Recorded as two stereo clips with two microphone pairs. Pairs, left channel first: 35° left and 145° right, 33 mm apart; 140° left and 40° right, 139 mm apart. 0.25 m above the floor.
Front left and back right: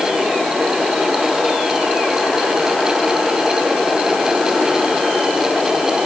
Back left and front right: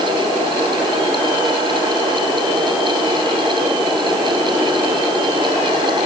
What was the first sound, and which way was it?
Only background noise.